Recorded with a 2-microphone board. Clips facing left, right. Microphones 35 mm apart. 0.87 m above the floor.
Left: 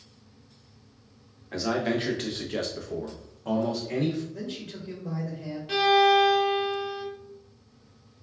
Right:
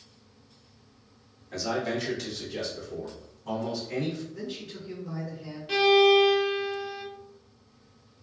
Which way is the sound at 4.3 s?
55° left (ahead or behind).